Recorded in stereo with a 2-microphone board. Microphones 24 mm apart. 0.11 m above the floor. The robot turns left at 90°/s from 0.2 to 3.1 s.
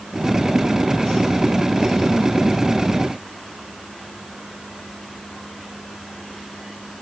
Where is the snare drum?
I don't hear a snare drum.